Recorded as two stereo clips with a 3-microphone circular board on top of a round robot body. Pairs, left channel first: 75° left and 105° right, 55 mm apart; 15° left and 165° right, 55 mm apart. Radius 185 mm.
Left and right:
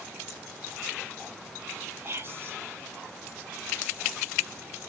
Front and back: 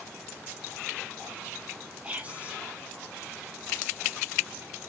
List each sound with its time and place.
2.0 s whispering: 115° right, 1.4 m